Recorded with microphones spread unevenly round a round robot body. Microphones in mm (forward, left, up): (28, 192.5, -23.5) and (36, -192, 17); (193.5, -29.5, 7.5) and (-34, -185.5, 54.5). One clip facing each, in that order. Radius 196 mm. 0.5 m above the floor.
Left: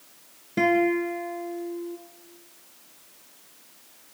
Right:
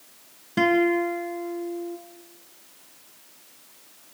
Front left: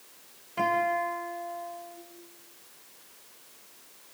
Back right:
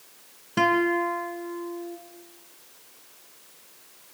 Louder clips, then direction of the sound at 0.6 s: Right 1 dB, back right 8 dB; 165° right.